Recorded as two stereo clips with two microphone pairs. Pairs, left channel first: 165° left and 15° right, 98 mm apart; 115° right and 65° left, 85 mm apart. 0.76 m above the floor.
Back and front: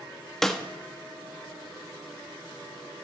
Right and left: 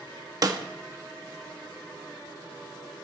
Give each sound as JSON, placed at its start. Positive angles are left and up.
{"t": 0.4, "sound": "a snare drum", "azimuth_deg": 80, "distance_m": 1.3}